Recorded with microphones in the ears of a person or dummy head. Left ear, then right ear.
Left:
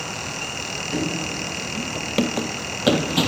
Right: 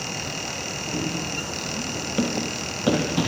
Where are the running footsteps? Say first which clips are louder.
Left 2 dB; 35° left (ahead or behind), 1.8 m; by 3.3 s 40° left (ahead or behind), 3.5 m.